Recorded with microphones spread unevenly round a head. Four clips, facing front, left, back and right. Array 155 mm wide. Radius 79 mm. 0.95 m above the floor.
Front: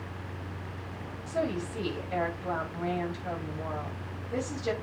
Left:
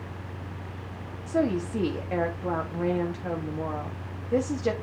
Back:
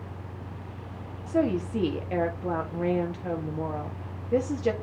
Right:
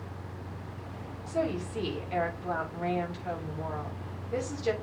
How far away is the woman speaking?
About 1.6 m.